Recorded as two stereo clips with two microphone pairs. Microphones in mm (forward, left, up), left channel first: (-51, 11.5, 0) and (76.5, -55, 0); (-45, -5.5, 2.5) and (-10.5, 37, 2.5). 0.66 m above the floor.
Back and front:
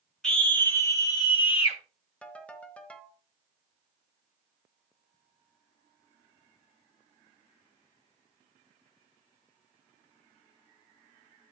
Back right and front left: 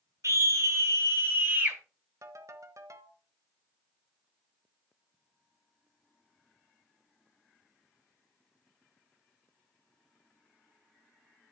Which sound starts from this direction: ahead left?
A scream, at 0.2 s.